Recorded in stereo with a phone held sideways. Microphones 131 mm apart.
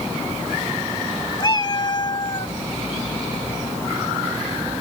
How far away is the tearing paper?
No tearing paper in this recording.